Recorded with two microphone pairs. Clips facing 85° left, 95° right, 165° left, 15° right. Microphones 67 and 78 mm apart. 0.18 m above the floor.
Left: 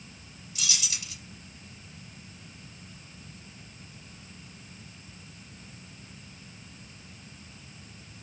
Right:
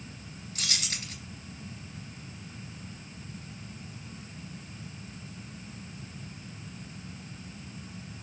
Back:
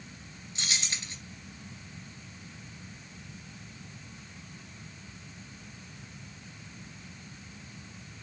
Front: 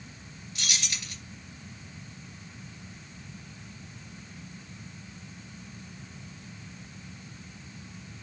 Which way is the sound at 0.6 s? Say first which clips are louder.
Even, even; 130° right.